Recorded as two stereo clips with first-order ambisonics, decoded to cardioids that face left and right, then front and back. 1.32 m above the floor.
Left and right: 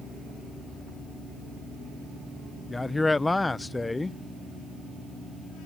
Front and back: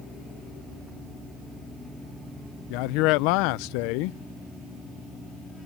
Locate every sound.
2.7 s a man speaking: 5° left